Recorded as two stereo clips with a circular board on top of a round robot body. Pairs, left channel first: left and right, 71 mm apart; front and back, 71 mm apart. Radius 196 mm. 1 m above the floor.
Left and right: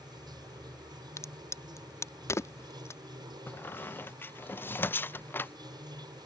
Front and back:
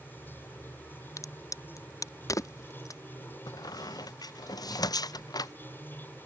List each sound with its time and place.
0.0 s running water: 60° right
1.2 s a crack: 40° left
3.5 s a squeak: 30° left